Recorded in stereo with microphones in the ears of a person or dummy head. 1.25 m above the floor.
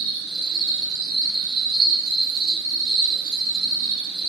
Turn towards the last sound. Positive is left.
turn(degrees=-50)  # may be behind; listen again after turning